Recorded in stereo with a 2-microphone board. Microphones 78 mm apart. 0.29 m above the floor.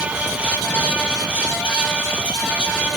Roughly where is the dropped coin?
No dropped coin in this recording.